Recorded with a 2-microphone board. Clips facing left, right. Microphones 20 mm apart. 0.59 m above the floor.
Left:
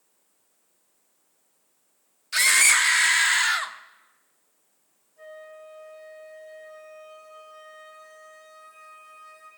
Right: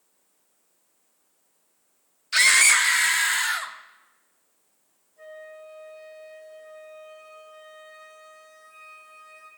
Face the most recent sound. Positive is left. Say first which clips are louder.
# right 1 dB
turn(degrees=10)  # may be behind; listen again after turning